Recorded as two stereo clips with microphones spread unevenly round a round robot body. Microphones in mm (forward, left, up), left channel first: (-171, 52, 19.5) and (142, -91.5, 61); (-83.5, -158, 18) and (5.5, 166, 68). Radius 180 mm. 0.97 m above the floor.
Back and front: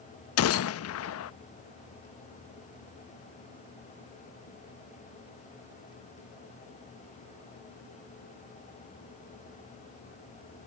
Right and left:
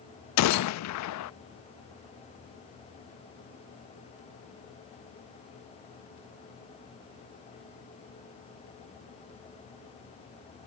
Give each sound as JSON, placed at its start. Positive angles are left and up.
{"t": 0.4, "sound": "a gunshot", "azimuth_deg": -150}